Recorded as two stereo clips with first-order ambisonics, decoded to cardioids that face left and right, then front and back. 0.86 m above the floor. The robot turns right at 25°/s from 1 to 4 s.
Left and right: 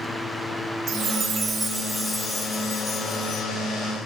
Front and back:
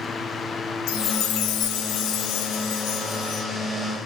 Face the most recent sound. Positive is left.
turn(degrees=50)